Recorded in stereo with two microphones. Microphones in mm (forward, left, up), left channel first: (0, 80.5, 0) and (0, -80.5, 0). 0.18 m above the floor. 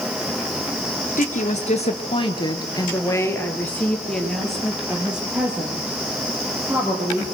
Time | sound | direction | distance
1.2 | a woman speaking | 50° left (ahead or behind) | 3.5 m